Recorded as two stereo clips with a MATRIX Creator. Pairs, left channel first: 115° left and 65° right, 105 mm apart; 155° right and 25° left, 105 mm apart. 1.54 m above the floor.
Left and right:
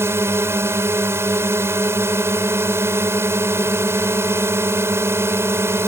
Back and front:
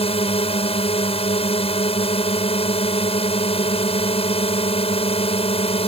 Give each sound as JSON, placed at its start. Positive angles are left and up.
{"t": 0.0, "sound": "a drone", "azimuth_deg": -135}